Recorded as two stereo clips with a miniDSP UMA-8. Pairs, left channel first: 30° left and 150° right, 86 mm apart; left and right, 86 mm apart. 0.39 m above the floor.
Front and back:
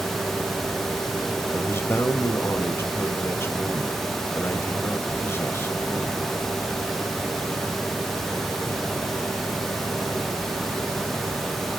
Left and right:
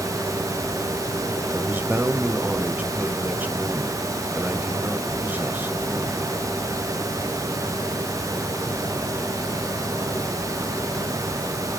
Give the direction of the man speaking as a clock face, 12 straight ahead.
1 o'clock.